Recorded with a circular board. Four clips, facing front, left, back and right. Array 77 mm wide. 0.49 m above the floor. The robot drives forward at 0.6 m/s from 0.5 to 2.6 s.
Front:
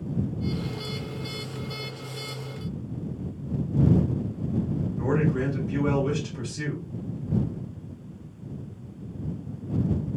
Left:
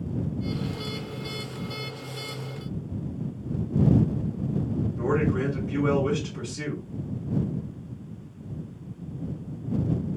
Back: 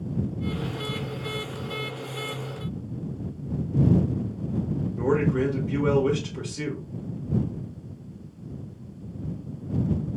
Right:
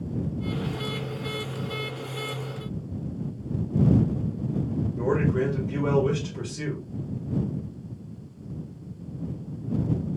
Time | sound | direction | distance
5.0 | a man speaking | 175° left | 1.4 m